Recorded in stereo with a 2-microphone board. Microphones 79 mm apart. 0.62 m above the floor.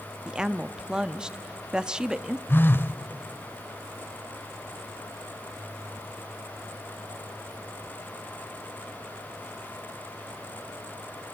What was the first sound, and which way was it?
A woman speaking, 10° right (ahead or behind).